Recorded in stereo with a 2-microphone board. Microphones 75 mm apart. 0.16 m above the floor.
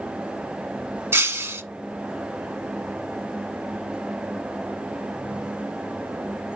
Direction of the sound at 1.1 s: 35° right (ahead or behind).